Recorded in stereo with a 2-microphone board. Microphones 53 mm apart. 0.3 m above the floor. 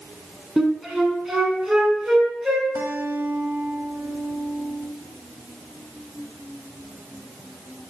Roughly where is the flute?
Centre.